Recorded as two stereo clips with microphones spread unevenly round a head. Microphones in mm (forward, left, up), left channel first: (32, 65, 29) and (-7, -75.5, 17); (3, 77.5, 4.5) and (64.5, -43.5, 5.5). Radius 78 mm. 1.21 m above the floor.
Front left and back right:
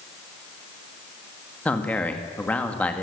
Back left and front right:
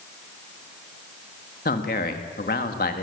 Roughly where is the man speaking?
Behind left.